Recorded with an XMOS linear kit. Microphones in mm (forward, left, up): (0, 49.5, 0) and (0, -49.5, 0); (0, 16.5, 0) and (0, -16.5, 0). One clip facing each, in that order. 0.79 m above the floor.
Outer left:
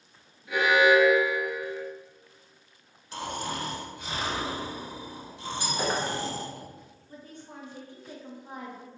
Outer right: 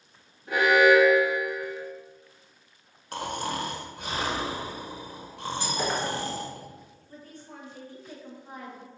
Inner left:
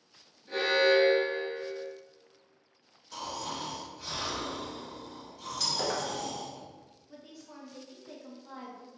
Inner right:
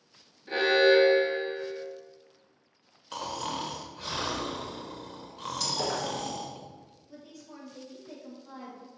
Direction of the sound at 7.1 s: 20° left (ahead or behind).